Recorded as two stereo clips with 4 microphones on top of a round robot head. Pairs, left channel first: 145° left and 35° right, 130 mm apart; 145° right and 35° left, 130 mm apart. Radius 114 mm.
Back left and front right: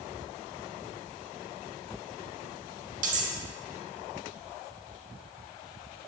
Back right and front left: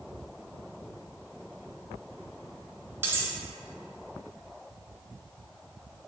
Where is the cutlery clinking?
40° right, 0.6 m.